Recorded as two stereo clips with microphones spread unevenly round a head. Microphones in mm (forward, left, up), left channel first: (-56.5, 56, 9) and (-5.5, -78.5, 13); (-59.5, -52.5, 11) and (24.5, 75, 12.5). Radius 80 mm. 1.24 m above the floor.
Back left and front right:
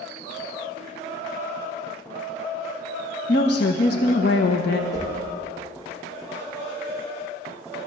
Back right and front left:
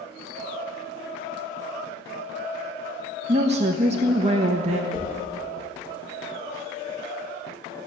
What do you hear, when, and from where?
3.3 s a woman speaking: 105° left, 1.3 m
4.9 s a whoosh: 125° left, 5.5 m